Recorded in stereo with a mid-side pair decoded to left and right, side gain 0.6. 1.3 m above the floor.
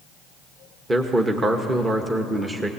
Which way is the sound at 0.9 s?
20° right.